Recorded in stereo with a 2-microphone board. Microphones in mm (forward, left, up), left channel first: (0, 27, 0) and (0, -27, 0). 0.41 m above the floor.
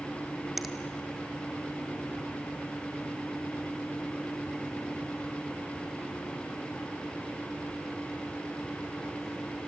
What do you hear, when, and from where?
0.6 s a finger snap: 5° right (ahead or behind), 1.6 m